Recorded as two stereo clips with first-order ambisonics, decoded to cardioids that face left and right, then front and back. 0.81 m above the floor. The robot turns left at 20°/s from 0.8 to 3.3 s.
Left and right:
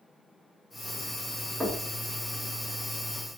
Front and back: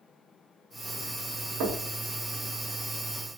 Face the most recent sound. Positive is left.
turn(degrees=150)